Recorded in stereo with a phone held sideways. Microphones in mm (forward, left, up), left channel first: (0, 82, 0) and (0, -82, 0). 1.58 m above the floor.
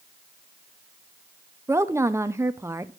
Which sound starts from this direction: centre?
A woman speaking, at 1.7 s.